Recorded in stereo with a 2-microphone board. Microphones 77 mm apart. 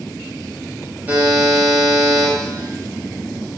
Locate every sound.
1.1 s a buzzer: 25° right (ahead or behind), 0.9 m